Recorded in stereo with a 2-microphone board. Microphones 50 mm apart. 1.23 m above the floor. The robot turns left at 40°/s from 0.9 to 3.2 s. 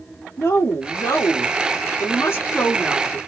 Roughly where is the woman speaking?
Left.